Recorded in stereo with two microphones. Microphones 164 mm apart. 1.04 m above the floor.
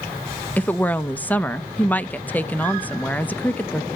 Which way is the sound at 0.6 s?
10° left (ahead or behind).